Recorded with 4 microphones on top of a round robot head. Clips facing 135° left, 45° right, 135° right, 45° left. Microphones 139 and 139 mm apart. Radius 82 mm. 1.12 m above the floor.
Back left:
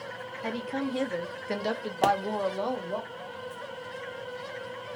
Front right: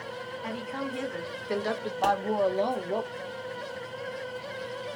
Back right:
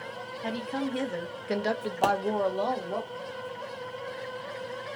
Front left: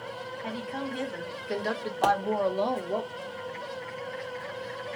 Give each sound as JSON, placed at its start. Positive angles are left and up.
{"t": 0.4, "sound": "a woman speaking", "azimuth_deg": 180, "distance_m": 1.1}
{"t": 2.0, "sound": "a pop", "azimuth_deg": 150, "distance_m": 0.8}